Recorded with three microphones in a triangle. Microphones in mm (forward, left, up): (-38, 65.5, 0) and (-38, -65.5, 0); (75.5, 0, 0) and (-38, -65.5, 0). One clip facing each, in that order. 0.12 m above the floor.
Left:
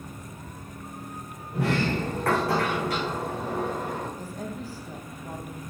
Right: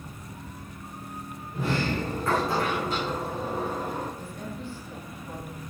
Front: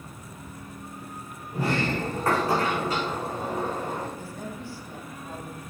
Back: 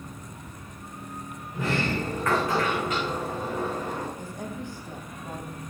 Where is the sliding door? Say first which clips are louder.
Left 2 dB, front 1 dB; 85° left, 7.5 m.